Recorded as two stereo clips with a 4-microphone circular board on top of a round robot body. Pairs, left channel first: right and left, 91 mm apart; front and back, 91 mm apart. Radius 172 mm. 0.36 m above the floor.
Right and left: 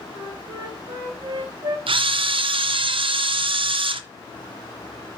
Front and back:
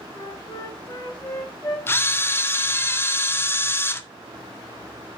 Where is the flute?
50° left, 3.5 m.